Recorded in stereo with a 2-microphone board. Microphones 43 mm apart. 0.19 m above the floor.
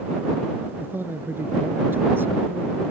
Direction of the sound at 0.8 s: 65° right (ahead or behind).